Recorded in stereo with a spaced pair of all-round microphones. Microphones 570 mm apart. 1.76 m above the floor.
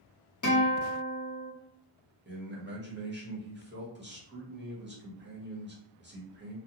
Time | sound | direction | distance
0.4 | a guitar | 30° left (ahead or behind) | 0.9 m
2.2 | a man speaking | 20° right (ahead or behind) | 1.0 m